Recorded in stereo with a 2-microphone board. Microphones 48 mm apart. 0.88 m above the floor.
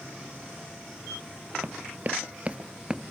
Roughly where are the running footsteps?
Right.